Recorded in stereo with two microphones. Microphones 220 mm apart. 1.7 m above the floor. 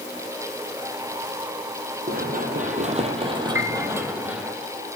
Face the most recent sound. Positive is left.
turn(degrees=-75)  # may be behind; listen again after turning